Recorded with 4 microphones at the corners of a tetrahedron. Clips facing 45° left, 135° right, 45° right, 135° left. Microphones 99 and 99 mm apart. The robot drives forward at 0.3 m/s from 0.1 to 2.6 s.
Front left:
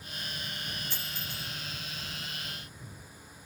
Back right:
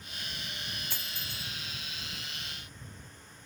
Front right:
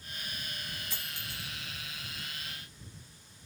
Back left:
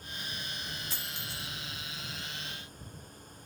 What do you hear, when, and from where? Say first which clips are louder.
0.9 s a dropped coin: front left 2 dB, back left 1 dB; 165° right, 1.5 m